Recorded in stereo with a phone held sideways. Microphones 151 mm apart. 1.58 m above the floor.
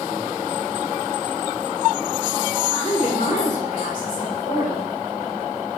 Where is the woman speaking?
50° left (ahead or behind), 4 m; by 4.9 s 70° left (ahead or behind), 6 m.